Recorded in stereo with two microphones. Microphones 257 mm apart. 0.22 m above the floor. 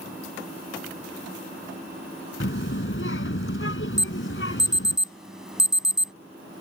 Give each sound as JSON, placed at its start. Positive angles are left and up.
{"t": 2.4, "sound": "a child speaking", "side_deg": 50}
{"t": 4.0, "sound": "an alarm", "side_deg": 0}